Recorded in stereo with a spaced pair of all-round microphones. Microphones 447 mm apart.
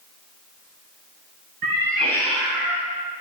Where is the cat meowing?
50° right (ahead or behind), 2.5 m; by 2.9 s 40° right (ahead or behind), 3 m.